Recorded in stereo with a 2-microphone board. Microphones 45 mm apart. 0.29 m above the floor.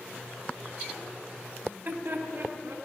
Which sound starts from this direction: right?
Laughter, at 1.6 s.